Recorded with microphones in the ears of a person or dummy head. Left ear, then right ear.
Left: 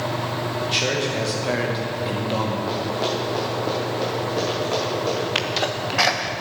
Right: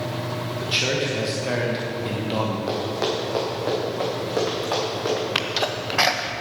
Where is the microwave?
No microwave in this recording.